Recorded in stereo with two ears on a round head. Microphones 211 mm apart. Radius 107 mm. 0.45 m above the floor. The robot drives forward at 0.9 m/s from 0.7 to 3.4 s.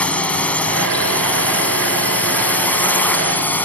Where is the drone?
5° left (ahead or behind); by 3.7 s 10° left (ahead or behind).